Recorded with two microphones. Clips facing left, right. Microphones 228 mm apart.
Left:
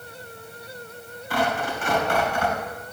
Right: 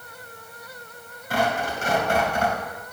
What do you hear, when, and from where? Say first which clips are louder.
1.3 s tearing paper: even; 45° right (ahead or behind), 2.5 m